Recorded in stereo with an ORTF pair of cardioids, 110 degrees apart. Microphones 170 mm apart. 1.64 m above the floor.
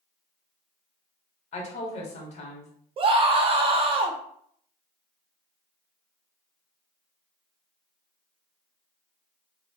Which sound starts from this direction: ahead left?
A woman speaking, at 1.5 s.